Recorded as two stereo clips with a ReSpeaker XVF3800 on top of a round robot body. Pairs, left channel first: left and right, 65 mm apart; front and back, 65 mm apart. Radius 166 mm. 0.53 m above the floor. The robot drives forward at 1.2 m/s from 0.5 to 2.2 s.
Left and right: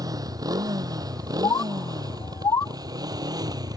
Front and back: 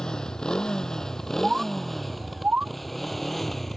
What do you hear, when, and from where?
0.0 s a motorcycle: 80° right; by 3.8 s 85° right
1.4 s a bird: 95° left; by 2.8 s 110° left